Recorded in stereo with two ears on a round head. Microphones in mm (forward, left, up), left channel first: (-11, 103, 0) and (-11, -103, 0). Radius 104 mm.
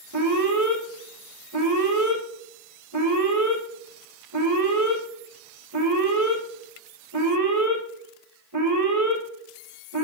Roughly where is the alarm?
Right.